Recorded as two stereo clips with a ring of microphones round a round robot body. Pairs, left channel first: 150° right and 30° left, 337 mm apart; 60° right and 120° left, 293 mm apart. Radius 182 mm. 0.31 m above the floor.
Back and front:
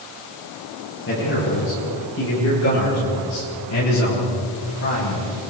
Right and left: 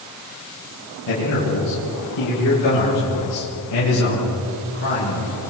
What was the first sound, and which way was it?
A man speaking, 95° right.